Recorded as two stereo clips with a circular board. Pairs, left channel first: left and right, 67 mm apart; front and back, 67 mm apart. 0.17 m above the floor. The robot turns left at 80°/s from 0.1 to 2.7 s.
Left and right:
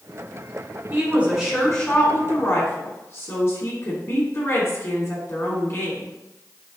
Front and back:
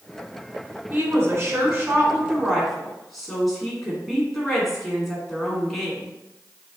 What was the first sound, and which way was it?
A woman speaking, 125° right.